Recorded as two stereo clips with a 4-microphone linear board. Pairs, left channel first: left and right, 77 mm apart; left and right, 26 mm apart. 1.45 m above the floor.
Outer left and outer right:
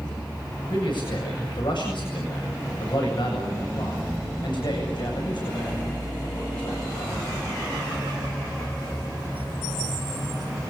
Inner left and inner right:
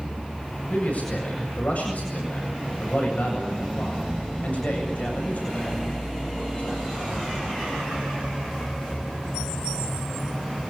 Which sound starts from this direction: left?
A man speaking, at 0.7 s.